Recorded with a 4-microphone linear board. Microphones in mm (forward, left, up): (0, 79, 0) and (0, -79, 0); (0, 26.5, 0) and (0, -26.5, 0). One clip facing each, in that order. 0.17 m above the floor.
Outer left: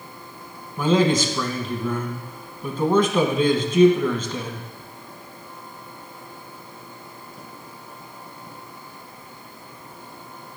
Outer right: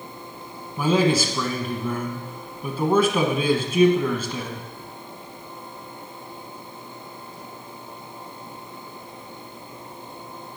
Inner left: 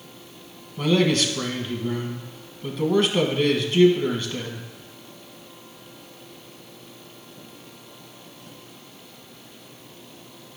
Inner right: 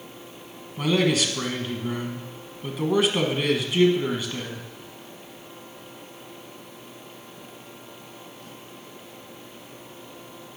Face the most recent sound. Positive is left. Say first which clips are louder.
# outer left 1 dB, inner left 2 dB
turn(degrees=-10)  # may be behind; listen again after turning